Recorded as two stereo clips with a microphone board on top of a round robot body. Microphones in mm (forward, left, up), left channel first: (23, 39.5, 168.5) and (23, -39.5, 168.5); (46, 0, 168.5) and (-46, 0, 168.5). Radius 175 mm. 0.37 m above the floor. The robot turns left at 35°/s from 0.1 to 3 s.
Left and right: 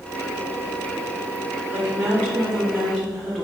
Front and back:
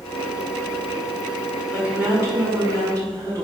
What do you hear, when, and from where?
1.7 s a woman speaking: 135° right, 1.0 m; by 3.5 s straight behind, 1.0 m